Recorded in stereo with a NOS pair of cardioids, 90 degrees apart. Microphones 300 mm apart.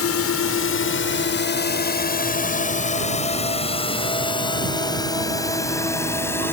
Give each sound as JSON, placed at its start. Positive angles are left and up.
{"t": 0.0, "sound": "a drone", "azimuth_deg": 55}